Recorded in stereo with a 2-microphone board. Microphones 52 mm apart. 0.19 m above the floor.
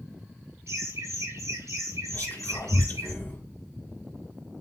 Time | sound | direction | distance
0.7 | laughter | 65° right (ahead or behind) | 3.5 m
2.1 | whispering | 45° left (ahead or behind) | 2 m